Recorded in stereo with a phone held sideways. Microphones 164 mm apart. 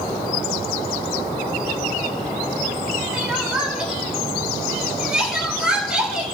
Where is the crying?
5° right (ahead or behind), 3 m.